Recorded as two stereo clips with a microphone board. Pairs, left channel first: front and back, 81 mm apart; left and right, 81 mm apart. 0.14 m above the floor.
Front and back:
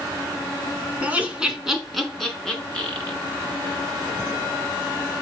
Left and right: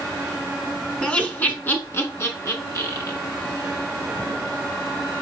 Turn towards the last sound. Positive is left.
turn(degrees=70)